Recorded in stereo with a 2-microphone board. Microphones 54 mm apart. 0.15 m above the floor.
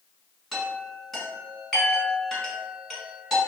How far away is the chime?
About 1.1 m.